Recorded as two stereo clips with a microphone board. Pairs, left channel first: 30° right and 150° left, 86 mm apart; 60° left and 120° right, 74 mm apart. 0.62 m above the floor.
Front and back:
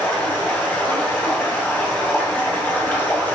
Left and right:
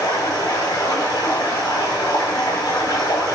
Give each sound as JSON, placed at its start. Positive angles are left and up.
{"t": 0.0, "sound": "running water", "azimuth_deg": 40, "distance_m": 3.0}